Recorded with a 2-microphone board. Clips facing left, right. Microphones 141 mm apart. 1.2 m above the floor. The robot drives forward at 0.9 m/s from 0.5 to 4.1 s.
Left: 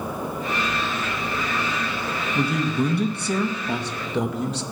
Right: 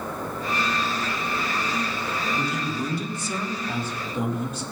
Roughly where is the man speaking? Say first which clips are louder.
Left 10 dB; left.